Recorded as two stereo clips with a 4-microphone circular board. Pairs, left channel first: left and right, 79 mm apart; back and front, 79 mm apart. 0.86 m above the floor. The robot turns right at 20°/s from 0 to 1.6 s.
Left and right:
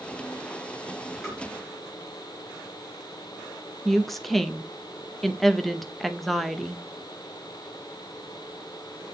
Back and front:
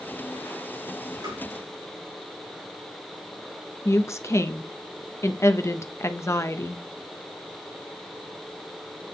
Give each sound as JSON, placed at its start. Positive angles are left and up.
{"t": 1.2, "sound": "tapping", "azimuth_deg": -5, "distance_m": 5.0}
{"t": 3.9, "sound": "a woman speaking", "azimuth_deg": 175, "distance_m": 0.6}